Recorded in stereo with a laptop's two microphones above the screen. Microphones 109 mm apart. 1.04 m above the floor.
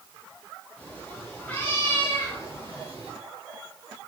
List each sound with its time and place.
0.8 s a cat meowing: 10° left (ahead or behind), 9 m; by 3.1 s 15° left (ahead or behind), 7.5 m